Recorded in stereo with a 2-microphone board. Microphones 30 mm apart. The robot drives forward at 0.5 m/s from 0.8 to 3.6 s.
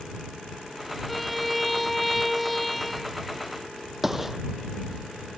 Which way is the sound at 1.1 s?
5° right (ahead or behind).